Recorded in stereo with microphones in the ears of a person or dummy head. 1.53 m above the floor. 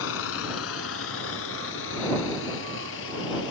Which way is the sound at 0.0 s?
80° left.